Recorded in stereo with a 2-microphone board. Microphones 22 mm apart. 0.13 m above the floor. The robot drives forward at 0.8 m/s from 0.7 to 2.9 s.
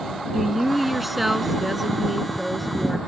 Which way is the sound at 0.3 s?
10° right (ahead or behind).